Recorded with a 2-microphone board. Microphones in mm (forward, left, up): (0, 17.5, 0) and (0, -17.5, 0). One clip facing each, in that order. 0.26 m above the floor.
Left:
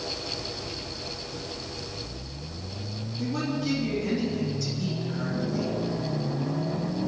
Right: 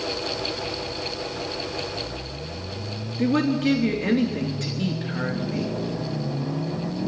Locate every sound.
3.2 s a woman speaking: 55° right (ahead or behind), 3 m